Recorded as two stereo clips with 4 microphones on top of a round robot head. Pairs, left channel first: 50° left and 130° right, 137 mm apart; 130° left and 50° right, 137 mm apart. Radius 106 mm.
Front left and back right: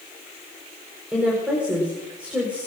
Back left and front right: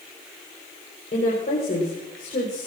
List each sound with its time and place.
1.1 s a woman speaking: 150° left, 4.5 m